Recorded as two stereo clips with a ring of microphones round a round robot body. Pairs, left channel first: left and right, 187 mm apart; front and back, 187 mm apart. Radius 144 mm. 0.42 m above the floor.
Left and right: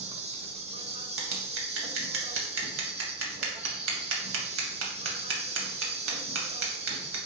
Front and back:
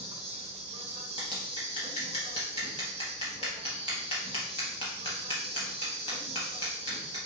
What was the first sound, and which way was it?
An insect, 135° right.